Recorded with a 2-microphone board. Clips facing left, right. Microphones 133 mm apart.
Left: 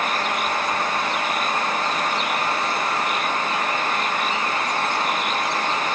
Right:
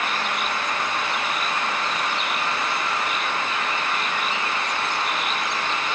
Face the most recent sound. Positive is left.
No sound to turn to.